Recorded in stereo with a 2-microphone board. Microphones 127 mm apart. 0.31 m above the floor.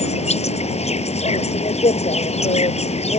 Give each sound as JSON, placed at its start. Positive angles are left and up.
{"t": 0.0, "sound": "an insect", "side_deg": 60}